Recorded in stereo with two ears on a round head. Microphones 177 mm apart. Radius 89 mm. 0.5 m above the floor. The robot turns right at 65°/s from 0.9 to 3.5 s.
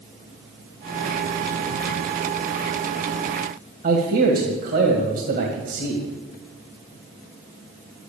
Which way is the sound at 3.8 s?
50° right (ahead or behind).